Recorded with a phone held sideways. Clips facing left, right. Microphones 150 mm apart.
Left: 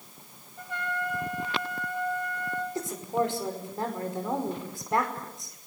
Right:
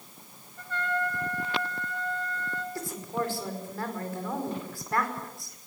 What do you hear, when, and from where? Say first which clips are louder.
0.6 s a trumpet: right 3 dB; 15° left (ahead or behind), 3 m
2.8 s a woman speaking: left 5 dB; 20° left (ahead or behind), 5 m